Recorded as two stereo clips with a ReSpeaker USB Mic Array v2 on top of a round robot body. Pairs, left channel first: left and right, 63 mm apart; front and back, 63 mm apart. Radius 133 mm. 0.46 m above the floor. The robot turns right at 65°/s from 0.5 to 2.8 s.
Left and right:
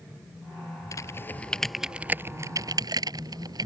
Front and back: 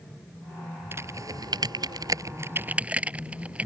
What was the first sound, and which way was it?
Typing on a keyboard, 125° left.